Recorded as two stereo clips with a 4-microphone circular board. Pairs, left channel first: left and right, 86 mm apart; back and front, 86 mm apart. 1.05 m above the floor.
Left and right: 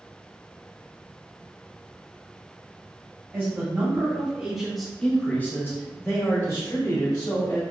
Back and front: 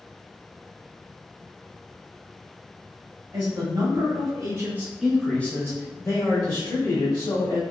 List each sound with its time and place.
3.3 s a man speaking: 25° right, 1.3 m; by 7.6 s 145° left, 1.8 m